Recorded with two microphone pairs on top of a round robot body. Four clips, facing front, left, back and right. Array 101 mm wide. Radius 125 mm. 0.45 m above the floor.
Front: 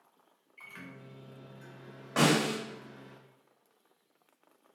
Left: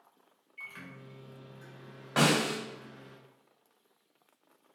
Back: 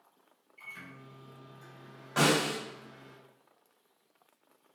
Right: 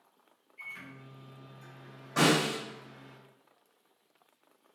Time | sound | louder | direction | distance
0.6 | a microwave | even, front 1 dB | 45° left | 1.6 m
2.2 | a snare drum | right 1 dB, front 1 dB | 65° left | 1.9 m